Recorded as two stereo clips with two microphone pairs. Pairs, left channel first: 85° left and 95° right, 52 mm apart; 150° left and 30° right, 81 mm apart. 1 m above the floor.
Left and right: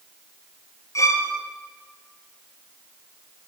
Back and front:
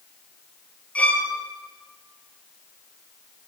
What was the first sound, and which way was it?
A violin, 75° left.